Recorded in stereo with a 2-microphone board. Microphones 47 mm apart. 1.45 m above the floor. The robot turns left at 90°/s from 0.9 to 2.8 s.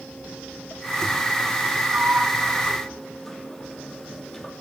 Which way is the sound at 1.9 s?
70° right (ahead or behind).